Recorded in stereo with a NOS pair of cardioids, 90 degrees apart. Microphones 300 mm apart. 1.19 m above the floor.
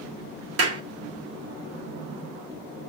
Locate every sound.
0.6 s a clap: 50° right, 2.0 m